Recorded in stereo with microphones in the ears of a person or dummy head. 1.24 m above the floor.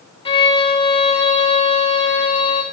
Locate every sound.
0.2 s a violin: 30° left (ahead or behind), 0.7 m